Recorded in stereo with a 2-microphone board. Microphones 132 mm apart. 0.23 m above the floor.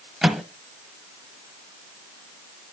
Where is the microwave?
5° right (ahead or behind), 1.3 m.